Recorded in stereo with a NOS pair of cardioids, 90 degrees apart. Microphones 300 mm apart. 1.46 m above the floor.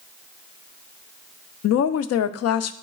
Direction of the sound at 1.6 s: 55° left.